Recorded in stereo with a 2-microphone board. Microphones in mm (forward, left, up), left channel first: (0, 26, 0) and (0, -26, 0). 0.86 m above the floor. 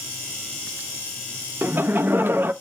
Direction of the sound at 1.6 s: 50° right (ahead or behind).